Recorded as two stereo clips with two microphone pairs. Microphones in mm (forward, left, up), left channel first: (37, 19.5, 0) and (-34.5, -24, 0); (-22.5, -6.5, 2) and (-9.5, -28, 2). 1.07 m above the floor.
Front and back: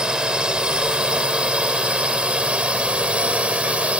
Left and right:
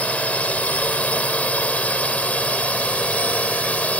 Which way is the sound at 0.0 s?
130° left.